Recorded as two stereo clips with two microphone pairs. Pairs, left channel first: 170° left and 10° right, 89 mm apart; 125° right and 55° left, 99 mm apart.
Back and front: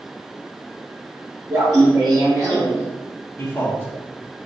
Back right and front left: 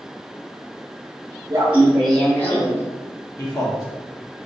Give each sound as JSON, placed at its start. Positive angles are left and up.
{"t": 1.5, "sound": "laughter", "azimuth_deg": 20, "distance_m": 0.8}
{"t": 3.4, "sound": "a man speaking", "azimuth_deg": -150, "distance_m": 1.1}